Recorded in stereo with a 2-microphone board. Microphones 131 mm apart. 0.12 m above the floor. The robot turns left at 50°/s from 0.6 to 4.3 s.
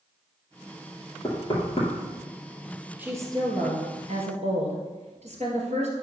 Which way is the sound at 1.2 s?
30° left (ahead or behind).